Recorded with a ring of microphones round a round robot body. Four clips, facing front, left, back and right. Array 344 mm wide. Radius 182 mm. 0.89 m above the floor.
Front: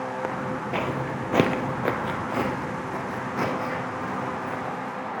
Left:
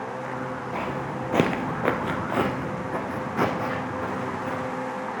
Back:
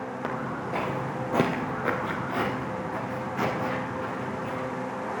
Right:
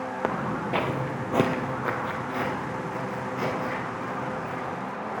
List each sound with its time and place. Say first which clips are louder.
0.2 s footsteps: right 3 dB, front 2 dB; 80° right, 1.2 m; by 4.7 s 80° left, 3 m